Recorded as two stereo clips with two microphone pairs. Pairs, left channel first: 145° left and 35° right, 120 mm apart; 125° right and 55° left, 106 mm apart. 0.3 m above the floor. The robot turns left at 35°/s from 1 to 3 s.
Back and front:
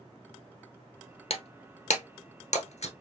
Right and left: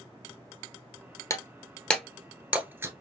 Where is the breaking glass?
Straight behind, 1.0 m; by 2.9 s 120° left, 1.0 m.